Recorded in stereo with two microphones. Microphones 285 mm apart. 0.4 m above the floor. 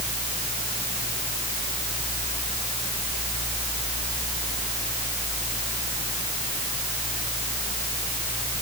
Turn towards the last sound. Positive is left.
No sound to turn to.